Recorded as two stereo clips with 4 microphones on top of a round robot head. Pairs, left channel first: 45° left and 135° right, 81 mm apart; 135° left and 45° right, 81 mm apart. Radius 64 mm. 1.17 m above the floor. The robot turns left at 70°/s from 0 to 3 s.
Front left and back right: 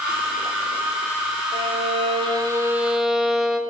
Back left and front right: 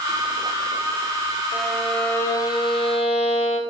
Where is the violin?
115° right, 0.9 m; by 3.6 s 140° left, 0.9 m.